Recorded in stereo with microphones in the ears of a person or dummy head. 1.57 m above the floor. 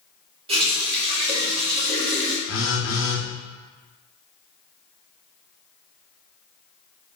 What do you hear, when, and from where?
0.5 s a running tap: 35° right (ahead or behind), 1.0 m
2.5 s a phone buzzing: 70° left (ahead or behind), 0.7 m